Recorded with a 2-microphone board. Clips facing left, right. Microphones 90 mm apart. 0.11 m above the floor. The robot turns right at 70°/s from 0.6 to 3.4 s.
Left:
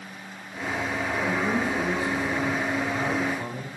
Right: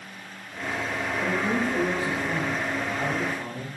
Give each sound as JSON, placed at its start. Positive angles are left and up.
{"t": 1.2, "sound": "a man speaking", "azimuth_deg": -100, "distance_m": 3.0}